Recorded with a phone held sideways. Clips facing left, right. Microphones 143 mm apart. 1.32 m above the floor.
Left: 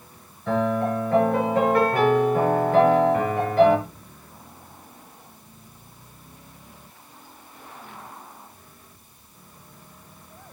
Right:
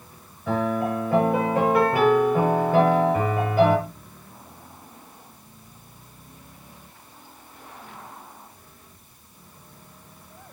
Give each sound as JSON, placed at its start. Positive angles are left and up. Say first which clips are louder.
{"t": 0.5, "sound": "a piano", "louder": "left 1 dB", "side_deg": -5, "distance_m": 6.5}